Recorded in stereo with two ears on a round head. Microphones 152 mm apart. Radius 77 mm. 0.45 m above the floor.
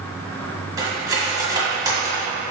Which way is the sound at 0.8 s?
20° right (ahead or behind).